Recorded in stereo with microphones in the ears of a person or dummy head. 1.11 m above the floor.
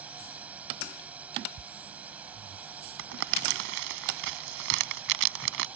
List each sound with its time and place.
0.0 s a drone: 10° right (ahead or behind)
3.0 s crumpling: 70° right (ahead or behind)